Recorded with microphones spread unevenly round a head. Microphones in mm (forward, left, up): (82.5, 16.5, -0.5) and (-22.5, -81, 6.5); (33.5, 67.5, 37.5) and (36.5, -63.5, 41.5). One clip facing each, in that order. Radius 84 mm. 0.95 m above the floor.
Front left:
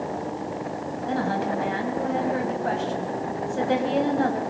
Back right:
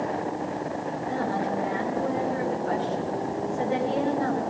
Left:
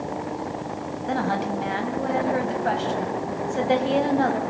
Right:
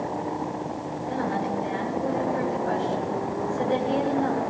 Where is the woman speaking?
80° left, 5 m.